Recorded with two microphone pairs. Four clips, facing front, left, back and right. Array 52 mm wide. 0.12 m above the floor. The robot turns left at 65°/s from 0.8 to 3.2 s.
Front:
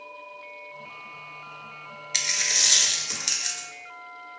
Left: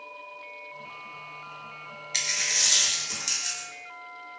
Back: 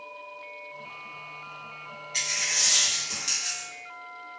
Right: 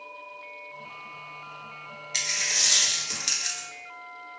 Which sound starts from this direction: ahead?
A dropped coin, at 2.1 s.